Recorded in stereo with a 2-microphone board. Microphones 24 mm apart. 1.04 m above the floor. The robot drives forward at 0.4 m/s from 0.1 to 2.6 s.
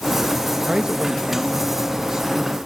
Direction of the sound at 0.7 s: 40° right (ahead or behind).